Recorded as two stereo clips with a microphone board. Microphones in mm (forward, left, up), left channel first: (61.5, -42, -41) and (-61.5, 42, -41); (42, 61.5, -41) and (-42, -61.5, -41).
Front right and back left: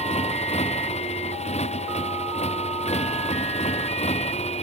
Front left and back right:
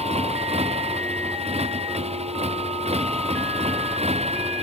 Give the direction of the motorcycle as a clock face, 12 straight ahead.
3 o'clock.